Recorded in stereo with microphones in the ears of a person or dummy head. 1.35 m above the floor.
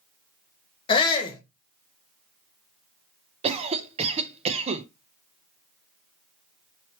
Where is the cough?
35° right (ahead or behind), 0.8 m.